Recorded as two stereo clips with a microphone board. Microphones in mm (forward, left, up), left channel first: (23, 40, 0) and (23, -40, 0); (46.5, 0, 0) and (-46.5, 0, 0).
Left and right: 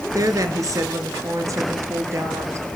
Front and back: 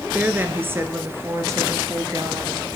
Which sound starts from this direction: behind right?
A woman speaking, at 0.1 s.